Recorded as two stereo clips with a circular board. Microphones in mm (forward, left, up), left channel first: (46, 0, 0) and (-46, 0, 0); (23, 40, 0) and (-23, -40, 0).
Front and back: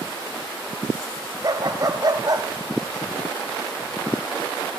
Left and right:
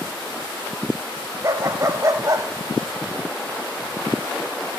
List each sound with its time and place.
1.4 s a dog barking: 155° right, 1.5 m